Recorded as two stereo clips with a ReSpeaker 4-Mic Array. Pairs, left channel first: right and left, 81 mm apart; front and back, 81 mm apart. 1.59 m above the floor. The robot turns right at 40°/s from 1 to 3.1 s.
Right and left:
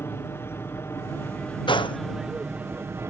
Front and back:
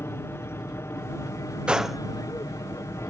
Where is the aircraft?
45° right; by 3.1 s 45° left.